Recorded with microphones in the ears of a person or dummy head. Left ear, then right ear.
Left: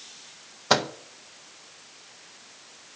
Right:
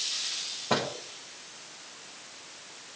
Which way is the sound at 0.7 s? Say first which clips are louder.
Left 6 dB; 70° left (ahead or behind).